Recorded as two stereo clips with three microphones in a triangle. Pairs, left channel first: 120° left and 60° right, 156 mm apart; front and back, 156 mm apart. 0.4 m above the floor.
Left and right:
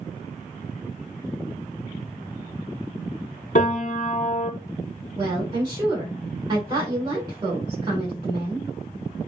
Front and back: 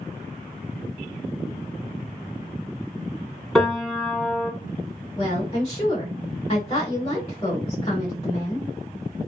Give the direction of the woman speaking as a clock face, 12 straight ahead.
1 o'clock.